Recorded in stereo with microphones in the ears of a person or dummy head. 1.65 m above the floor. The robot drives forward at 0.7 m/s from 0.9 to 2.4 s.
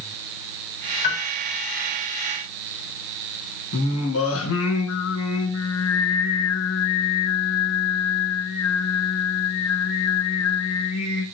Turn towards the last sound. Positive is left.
turn(degrees=75)  # may be behind; listen again after turning